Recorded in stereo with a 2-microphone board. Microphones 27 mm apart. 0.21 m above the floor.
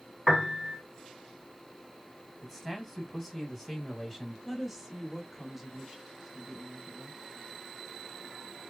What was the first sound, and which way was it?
A piano, centre (ahead or behind).